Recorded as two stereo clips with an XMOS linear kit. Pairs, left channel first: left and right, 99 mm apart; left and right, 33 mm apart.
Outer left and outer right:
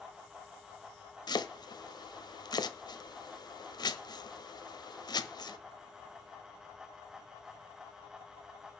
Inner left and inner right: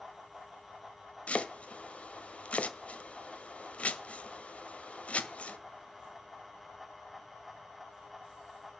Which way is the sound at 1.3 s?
45° left (ahead or behind).